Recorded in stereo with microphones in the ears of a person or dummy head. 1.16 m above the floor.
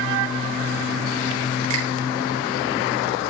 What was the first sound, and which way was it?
A finger snap, 90° right.